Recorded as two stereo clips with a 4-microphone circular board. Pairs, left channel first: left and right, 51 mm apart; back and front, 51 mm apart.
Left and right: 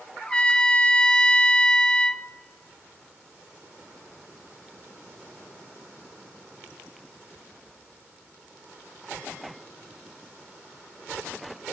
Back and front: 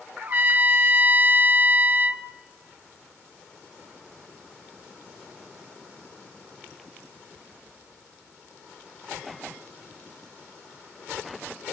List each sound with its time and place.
0.2 s a trumpet: 30° left, 0.5 m